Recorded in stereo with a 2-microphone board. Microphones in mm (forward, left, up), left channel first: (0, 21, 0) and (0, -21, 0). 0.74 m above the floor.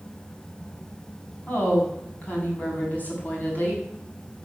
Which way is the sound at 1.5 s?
40° left (ahead or behind).